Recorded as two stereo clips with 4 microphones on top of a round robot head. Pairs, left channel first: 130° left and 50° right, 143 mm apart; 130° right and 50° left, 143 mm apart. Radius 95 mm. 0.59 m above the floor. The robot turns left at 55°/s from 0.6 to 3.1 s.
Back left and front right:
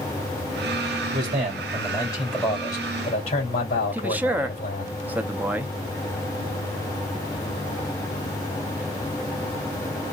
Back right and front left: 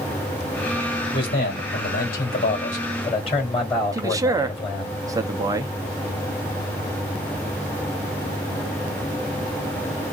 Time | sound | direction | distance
1.1 | a man speaking | 75° right | 2.5 m
3.9 | a man speaking | 15° left | 0.6 m